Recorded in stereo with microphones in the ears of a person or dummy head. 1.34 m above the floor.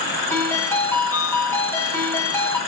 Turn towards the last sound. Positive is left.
turn(degrees=10)  # may be behind; listen again after turning